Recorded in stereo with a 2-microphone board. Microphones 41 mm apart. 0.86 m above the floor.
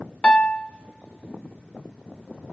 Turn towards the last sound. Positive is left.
turn(degrees=25)  # may be behind; listen again after turning